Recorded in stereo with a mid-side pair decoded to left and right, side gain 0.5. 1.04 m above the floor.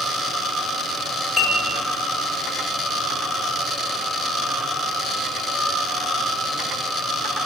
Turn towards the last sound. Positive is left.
turn(degrees=35)